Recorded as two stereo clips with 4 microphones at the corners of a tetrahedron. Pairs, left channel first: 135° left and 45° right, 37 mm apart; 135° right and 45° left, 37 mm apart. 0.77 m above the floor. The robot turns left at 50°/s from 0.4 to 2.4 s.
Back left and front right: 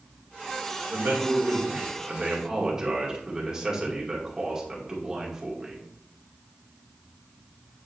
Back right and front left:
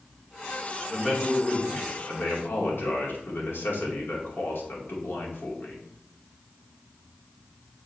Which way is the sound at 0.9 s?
45° right.